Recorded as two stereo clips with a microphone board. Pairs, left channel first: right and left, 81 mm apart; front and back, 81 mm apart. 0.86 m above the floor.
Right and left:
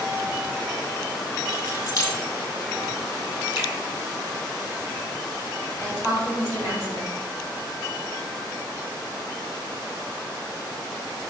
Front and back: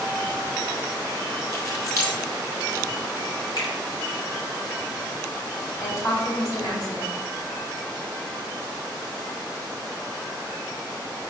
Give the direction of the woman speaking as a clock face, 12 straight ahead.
11 o'clock.